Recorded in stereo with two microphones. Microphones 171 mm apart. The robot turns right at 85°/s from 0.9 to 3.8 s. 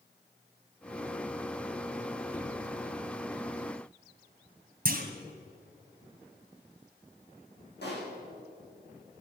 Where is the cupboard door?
5° left (ahead or behind), 2.5 m; by 2.6 s 25° left (ahead or behind), 2.5 m.